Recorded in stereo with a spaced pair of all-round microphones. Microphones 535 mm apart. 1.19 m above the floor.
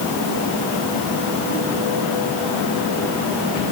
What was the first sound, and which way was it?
Only background noise.